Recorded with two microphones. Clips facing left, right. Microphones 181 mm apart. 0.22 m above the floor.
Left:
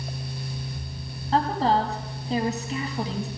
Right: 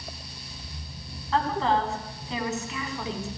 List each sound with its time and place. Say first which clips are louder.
1.3 s a woman speaking: left 2 dB; 35° left (ahead or behind), 1.9 m